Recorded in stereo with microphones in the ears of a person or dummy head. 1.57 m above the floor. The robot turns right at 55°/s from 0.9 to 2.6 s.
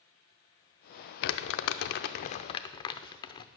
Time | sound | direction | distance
1.2 | crumpling | 55° left (ahead or behind) | 0.5 m